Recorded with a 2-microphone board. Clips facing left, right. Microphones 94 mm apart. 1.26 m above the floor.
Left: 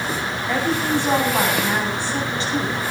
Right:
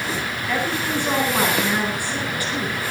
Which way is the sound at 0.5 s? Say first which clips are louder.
Left 3 dB; 25° left (ahead or behind).